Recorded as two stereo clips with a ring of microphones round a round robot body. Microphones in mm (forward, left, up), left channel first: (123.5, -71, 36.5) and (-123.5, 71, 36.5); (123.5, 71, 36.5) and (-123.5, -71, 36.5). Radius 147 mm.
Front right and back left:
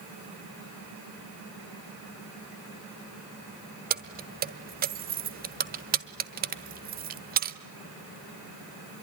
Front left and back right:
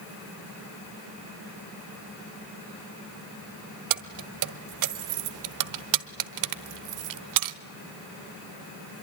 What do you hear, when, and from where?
3.9 s keys jangling: 150° right, 1.2 m